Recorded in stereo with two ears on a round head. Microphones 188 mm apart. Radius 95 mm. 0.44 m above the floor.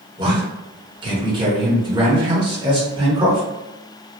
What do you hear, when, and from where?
0.2 s a man speaking: 25° right (ahead or behind), 1.0 m